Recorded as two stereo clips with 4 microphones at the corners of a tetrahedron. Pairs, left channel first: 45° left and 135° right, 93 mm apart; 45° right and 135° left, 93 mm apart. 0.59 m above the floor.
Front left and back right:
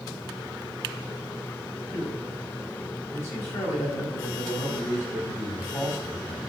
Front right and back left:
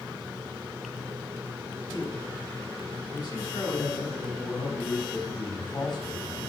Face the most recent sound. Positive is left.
turn(degrees=-10)